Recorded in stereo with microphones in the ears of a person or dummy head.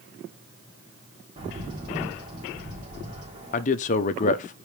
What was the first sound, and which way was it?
A bird, 25° right (ahead or behind).